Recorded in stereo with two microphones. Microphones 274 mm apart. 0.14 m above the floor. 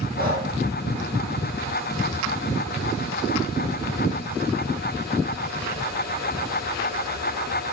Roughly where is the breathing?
Right.